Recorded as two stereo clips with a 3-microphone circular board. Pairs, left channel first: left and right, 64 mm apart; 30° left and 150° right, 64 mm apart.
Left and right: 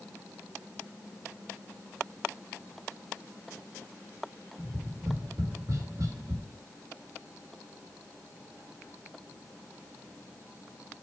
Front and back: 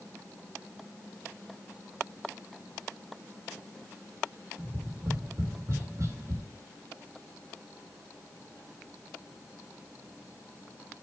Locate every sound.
4.6 s tapping: 110° right, 1.7 m